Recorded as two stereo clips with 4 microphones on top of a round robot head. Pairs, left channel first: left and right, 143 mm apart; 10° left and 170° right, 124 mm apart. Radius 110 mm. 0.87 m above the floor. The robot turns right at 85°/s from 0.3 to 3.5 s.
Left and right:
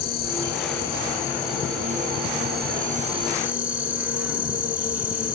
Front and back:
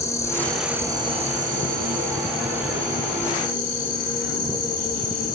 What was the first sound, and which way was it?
An insect, 80° left.